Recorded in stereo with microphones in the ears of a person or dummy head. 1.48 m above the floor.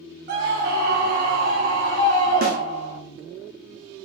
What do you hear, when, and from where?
0.3 s a scream: 60° right (ahead or behind), 0.7 m; by 3.0 s 50° right (ahead or behind), 2.5 m
2.4 s a snare drum: 45° right (ahead or behind), 0.6 m